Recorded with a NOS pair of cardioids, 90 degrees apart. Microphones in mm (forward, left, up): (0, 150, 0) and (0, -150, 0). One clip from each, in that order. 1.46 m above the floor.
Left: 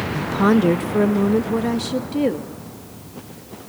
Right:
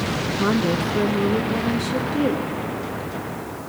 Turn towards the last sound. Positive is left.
turn(degrees=25)